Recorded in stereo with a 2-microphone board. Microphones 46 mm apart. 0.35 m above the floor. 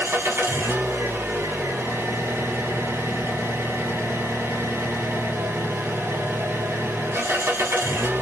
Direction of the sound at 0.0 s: 90° right.